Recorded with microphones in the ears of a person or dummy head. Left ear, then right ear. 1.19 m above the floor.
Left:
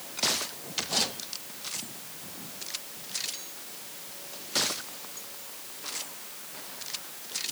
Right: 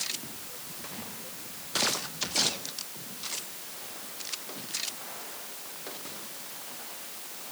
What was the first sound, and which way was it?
Only background noise.